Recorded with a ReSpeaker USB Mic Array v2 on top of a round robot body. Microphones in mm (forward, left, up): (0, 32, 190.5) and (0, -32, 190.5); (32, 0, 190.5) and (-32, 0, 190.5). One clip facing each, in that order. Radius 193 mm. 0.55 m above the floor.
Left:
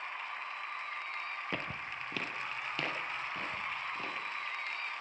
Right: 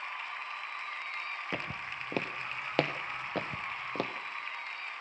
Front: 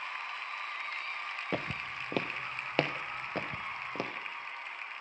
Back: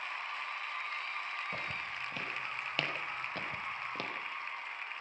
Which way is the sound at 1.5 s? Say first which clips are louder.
Right 1 dB, front 3 dB; 5° right.